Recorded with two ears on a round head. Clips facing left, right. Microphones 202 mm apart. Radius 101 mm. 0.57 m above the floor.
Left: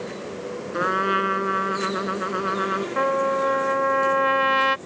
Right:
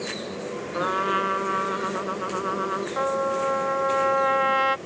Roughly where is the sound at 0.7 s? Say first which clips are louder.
Left 2 dB; left.